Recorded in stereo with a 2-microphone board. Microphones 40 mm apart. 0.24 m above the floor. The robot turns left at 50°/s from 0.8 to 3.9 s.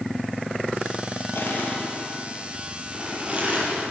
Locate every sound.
1.4 s crushing: 65° left (ahead or behind), 7 m; by 3.9 s 60° right (ahead or behind), 7 m